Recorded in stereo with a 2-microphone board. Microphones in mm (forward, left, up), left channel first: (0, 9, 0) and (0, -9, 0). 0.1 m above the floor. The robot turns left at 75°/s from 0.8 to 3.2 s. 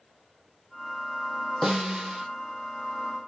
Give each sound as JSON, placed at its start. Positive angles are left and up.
{"t": 1.6, "sound": "a snare drum", "azimuth_deg": -15, "distance_m": 1.9}